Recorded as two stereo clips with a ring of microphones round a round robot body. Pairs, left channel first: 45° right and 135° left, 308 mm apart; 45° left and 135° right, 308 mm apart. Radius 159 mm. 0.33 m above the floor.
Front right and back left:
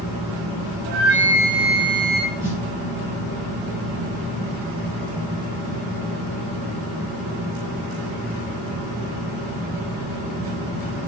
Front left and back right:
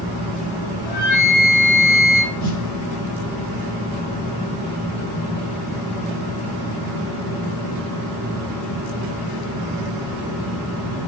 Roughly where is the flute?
Ahead left.